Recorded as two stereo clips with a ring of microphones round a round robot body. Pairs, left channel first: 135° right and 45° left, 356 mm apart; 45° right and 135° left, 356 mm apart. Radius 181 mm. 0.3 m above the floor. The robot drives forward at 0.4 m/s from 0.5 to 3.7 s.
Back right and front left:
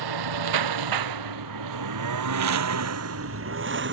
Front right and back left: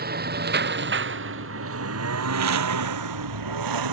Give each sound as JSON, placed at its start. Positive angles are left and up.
{"t": 0.0, "sound": "a lawn mower", "azimuth_deg": 70}